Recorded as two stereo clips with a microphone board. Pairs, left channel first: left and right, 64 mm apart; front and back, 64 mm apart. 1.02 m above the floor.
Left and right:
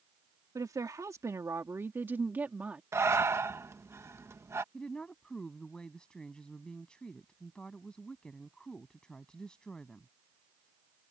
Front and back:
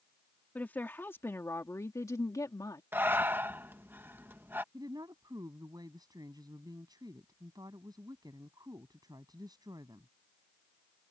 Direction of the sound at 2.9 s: 125° right.